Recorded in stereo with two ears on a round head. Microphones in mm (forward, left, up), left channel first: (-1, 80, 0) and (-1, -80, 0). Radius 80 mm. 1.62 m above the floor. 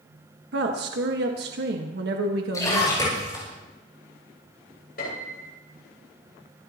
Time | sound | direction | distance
0.5 | a woman speaking | 65° right (ahead or behind) | 1.5 m
2.5 | a splash | 20° left (ahead or behind) | 9 m
5.0 | a piano | 55° left (ahead or behind) | 6 m